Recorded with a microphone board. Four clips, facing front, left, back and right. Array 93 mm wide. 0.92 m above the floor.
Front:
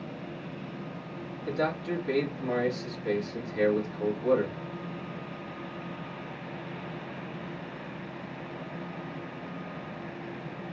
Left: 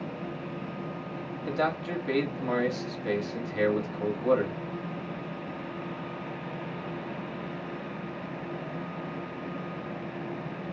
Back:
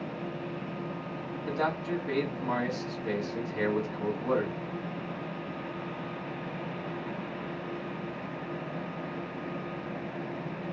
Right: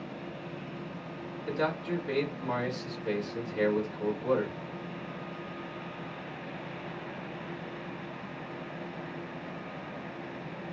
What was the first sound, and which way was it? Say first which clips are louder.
A man speaking: left 2 dB, front 1 dB; 95° left.